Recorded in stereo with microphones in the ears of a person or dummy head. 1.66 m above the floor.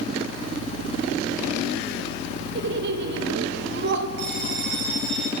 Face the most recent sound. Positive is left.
turn(degrees=-50)  # may be behind; listen again after turning